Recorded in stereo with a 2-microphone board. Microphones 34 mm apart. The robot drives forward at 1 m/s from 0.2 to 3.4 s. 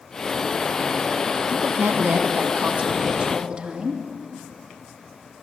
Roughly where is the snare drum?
No snare drum in this recording.